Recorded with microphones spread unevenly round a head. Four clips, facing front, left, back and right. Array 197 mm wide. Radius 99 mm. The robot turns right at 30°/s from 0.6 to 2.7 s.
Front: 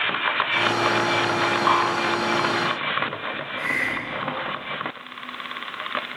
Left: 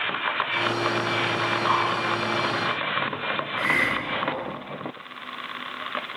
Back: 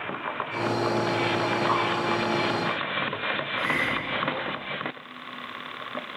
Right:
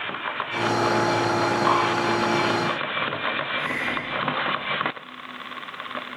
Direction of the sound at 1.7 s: 10° right.